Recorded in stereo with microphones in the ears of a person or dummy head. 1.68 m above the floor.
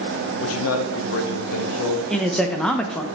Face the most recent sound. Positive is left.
turn(degrees=0)  # may be behind; listen again after turning